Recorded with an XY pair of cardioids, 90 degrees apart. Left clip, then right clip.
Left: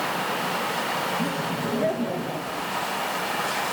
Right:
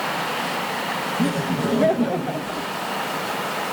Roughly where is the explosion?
I don't hear an explosion.